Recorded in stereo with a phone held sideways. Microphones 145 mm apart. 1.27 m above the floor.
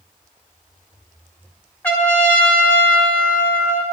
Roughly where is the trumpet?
Centre.